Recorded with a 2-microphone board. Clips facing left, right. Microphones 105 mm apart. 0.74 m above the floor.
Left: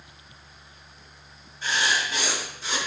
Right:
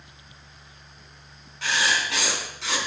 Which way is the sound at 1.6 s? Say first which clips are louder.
Right 1 dB; 85° right.